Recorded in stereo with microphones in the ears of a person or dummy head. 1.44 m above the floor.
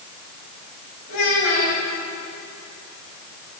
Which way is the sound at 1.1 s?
85° left.